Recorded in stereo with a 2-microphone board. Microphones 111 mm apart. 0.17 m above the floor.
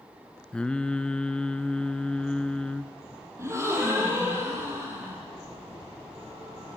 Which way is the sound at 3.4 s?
25° right (ahead or behind).